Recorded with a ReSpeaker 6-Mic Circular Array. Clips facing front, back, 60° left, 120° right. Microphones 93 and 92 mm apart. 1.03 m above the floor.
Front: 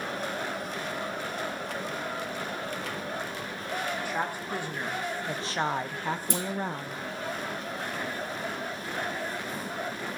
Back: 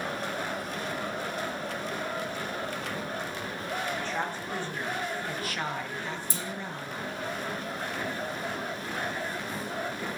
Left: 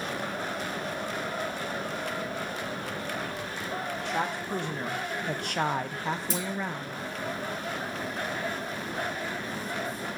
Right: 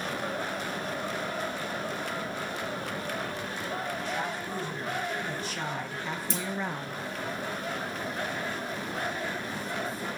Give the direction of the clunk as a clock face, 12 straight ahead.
1 o'clock.